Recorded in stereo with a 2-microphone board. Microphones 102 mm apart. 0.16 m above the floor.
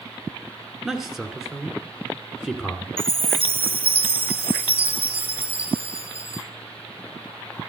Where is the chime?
65° right (ahead or behind), 1.4 m.